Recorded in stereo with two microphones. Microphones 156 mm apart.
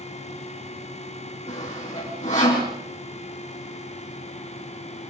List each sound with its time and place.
1.5 s sawing: 50° left (ahead or behind), 7 m